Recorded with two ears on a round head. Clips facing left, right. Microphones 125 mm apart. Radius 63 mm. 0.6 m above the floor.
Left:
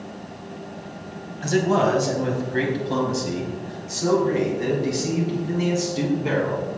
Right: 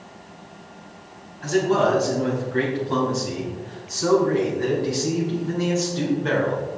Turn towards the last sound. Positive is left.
turn(degrees=15)  # may be behind; listen again after turning